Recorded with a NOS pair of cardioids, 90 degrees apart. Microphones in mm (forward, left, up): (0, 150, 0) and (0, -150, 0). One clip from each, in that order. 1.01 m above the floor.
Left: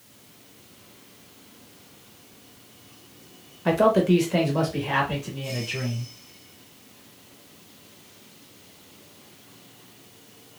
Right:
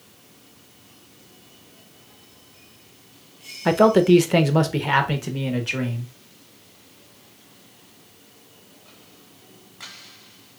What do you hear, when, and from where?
3.6 s a man speaking: 25° right, 0.7 m; by 6.1 s 75° right, 1.6 m